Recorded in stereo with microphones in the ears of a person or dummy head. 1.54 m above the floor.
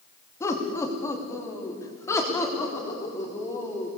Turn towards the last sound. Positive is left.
turn(degrees=10)  # may be behind; listen again after turning